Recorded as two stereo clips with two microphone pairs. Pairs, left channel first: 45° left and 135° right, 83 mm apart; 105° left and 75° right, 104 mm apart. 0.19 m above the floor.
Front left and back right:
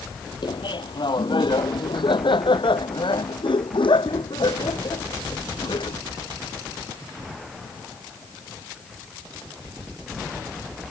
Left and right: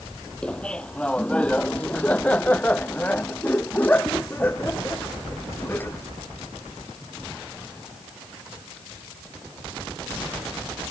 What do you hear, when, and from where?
0.4 s laughter: 25° left; by 6.0 s 35° left